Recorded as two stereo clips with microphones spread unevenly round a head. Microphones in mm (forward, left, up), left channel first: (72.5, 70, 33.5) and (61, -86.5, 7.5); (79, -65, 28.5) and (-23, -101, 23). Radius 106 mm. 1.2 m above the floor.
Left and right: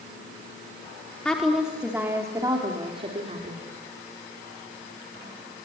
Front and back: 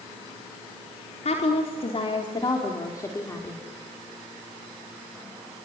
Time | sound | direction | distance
1.2 | a woman speaking | straight ahead | 4 m